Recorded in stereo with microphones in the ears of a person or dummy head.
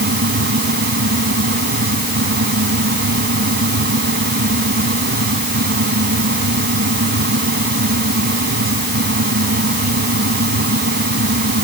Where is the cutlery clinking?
No cutlery clinking in this recording.